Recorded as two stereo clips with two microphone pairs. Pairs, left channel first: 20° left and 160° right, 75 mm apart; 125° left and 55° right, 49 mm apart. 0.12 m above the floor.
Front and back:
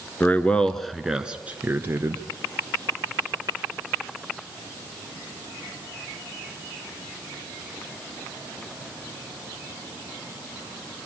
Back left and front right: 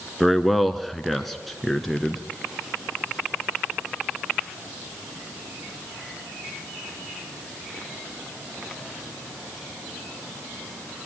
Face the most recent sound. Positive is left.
turn(degrees=-150)